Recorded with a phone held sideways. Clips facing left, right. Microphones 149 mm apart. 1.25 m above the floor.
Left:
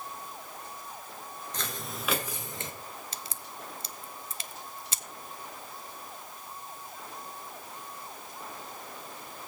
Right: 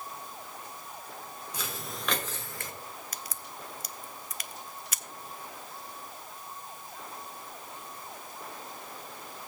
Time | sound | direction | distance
1.5 | footsteps | 10° right (ahead or behind) | 1.3 m
3.1 | a crack | 25° left (ahead or behind) | 0.5 m